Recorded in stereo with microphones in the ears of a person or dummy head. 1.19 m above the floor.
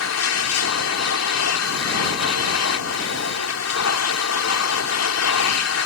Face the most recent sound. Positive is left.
turn(degrees=80)